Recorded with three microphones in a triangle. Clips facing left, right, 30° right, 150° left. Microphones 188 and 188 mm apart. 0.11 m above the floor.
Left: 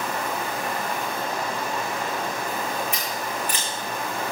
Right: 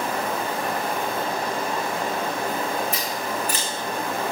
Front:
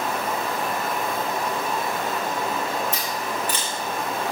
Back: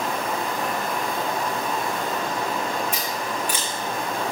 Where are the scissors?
130° right, 7 m.